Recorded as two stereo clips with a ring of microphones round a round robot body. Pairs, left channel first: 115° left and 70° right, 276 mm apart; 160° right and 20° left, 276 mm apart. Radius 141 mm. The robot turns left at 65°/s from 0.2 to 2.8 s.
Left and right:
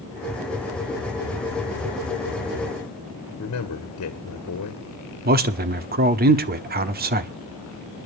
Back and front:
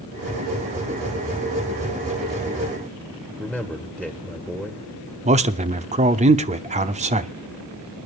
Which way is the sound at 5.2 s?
30° right.